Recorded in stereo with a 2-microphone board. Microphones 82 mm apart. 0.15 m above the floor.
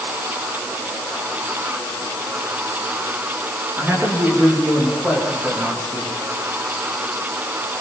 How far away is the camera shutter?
No camera shutter in this recording.